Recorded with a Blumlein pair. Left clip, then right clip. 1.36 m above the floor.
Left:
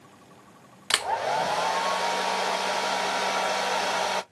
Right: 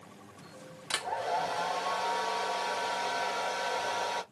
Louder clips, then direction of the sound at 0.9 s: Left 7 dB; 30° left.